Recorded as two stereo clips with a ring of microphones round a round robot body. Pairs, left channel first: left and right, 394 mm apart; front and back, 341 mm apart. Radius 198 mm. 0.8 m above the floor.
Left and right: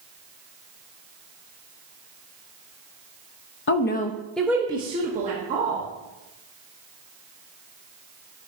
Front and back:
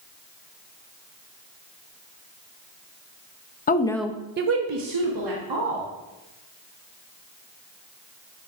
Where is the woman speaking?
50° left, 0.7 m; by 5.9 s 160° right, 1.6 m.